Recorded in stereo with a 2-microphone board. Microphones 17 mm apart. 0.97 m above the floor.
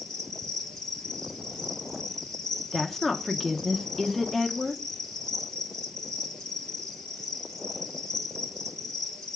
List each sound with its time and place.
0.0 s an insect: 50° left (ahead or behind), 3.5 m
2.7 s a woman speaking: 15° left (ahead or behind), 0.8 m